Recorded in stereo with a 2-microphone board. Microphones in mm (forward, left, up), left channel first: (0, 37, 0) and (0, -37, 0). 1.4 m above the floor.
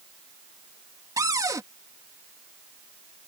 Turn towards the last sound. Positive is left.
turn(degrees=-50)  # may be behind; listen again after turning